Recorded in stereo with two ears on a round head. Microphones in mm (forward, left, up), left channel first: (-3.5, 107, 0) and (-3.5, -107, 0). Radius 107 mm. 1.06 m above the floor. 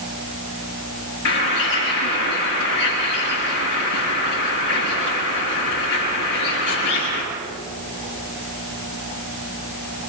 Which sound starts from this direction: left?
A bird, at 1.2 s.